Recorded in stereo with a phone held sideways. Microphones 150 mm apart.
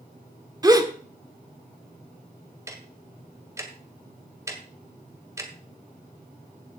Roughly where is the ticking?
Centre.